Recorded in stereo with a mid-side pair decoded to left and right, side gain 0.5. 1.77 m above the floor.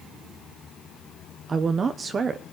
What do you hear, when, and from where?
1.5 s a woman speaking: 40° right, 1.2 m